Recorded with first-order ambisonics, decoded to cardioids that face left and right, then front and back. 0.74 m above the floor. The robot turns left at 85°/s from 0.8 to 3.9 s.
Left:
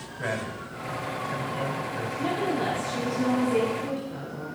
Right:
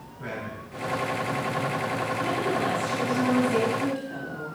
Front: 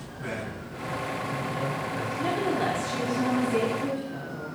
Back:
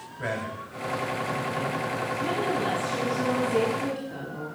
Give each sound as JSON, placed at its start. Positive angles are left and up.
{"t": 0.2, "sound": "a man speaking", "azimuth_deg": 150, "distance_m": 4.5}
{"t": 2.2, "sound": "a woman speaking", "azimuth_deg": 40, "distance_m": 4.5}